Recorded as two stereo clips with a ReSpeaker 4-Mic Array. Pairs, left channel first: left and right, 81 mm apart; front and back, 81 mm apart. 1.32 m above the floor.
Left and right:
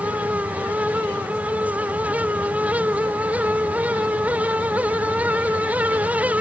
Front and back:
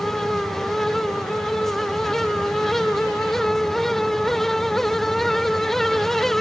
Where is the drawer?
No drawer in this recording.